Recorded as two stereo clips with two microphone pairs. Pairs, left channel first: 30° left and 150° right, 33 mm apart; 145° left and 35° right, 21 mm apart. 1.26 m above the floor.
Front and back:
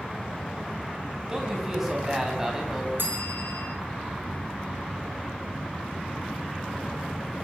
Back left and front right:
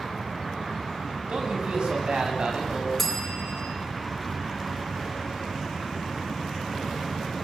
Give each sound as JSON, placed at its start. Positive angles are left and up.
{"t": 1.3, "sound": "a man speaking", "azimuth_deg": -70, "distance_m": 9.0}
{"t": 3.0, "sound": "a bell", "azimuth_deg": -130, "distance_m": 8.5}